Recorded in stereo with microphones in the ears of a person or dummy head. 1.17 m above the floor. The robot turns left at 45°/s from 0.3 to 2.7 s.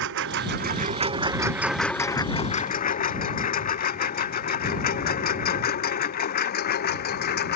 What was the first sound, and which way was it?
A lawn mower, 70° right (ahead or behind).